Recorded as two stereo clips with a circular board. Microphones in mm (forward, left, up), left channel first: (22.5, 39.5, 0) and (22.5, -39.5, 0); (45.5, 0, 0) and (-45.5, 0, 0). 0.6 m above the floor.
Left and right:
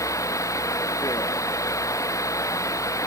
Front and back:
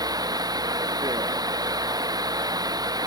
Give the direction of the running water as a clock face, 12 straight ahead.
7 o'clock.